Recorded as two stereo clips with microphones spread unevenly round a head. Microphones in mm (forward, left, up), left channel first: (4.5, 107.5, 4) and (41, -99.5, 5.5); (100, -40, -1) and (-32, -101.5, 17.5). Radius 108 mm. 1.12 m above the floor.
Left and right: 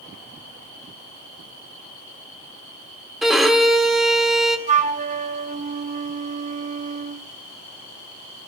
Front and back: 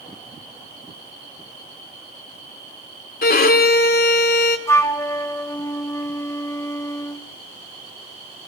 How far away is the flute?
About 0.8 m.